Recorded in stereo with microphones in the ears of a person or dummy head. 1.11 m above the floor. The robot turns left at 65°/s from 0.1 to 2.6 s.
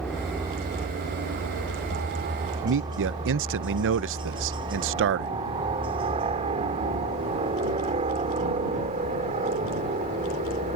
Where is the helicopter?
5° left (ahead or behind); by 10.8 s 35° right (ahead or behind).